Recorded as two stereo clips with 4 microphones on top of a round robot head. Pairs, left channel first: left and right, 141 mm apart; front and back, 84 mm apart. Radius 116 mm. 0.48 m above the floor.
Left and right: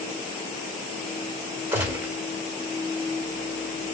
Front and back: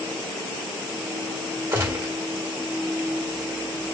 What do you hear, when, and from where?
1.7 s a gunshot: 155° right, 1.3 m